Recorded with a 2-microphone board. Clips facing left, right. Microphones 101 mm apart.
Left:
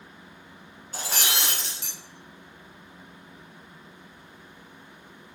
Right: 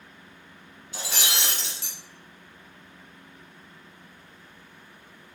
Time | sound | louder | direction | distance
0.9 | breaking glass | left 1 dB | 45° left (ahead or behind) | 1.5 m